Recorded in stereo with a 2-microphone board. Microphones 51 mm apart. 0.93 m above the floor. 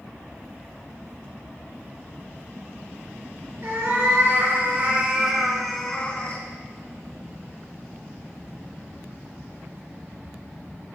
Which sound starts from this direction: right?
A cat meowing, at 3.6 s.